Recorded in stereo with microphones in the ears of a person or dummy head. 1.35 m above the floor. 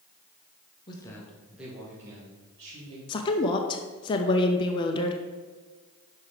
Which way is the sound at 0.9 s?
25° left (ahead or behind).